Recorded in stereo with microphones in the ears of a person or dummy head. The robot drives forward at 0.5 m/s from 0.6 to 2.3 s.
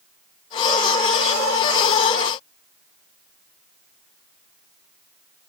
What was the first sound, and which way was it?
Only background noise.